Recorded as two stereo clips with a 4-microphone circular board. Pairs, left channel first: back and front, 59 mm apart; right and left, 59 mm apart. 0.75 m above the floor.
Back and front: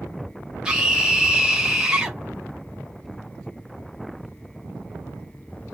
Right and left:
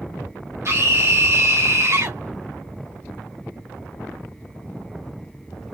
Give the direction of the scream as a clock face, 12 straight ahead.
9 o'clock.